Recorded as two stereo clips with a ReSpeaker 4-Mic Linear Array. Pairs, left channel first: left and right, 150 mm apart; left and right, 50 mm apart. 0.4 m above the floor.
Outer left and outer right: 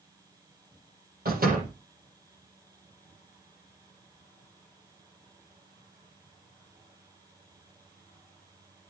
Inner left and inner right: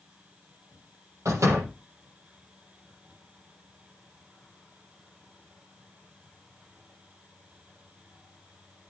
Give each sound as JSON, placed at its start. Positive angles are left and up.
{"t": 1.2, "sound": "a door slam", "side_deg": -80, "distance_m": 7.5}